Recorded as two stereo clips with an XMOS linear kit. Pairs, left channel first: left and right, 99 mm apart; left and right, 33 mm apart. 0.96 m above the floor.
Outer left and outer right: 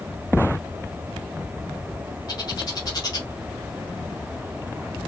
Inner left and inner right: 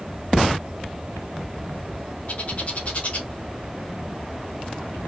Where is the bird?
40° left (ahead or behind), 1.1 m.